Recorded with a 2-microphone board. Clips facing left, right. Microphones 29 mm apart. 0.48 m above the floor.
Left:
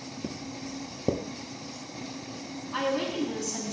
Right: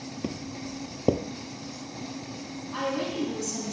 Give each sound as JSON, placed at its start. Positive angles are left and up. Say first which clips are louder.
{"t": 0.2, "sound": "footsteps", "louder": "right 2 dB", "side_deg": -40, "distance_m": 0.6}
{"t": 2.7, "sound": "a woman speaking", "louder": "left 1 dB", "side_deg": 15, "distance_m": 4.0}